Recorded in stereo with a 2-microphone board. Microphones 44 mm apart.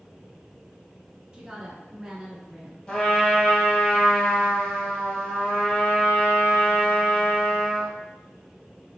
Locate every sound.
1.3 s a woman speaking: 15° right (ahead or behind), 1.0 m
2.9 s a trumpet: 20° left (ahead or behind), 1.7 m